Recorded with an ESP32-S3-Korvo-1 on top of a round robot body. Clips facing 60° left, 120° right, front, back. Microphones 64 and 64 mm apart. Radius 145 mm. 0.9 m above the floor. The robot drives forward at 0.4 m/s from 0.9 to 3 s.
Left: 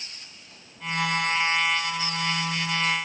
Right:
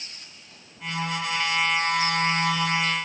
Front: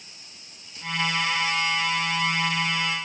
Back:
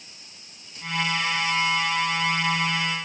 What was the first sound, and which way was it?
Only background noise.